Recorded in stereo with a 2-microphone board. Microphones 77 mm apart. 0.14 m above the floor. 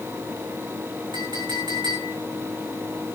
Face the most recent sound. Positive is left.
turn(degrees=-75)  # may be behind; listen again after turning